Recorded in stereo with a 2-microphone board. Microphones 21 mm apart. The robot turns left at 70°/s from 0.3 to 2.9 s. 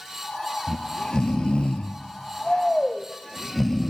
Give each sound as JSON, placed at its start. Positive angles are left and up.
{"t": 0.7, "sound": "snoring", "azimuth_deg": 175, "distance_m": 0.5}